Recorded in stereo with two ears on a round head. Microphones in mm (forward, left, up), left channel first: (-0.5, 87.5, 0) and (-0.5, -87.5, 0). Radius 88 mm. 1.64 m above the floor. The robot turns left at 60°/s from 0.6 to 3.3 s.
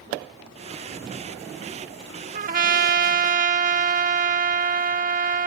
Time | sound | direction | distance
2.3 | a trumpet | 60° right | ?